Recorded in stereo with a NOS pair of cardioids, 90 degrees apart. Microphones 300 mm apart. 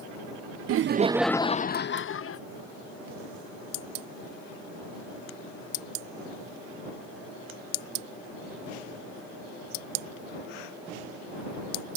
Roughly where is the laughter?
Ahead right.